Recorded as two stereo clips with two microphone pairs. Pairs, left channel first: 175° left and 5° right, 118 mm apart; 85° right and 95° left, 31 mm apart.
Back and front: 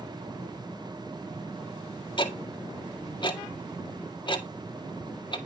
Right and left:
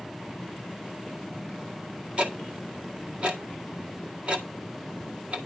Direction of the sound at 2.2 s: 140° left.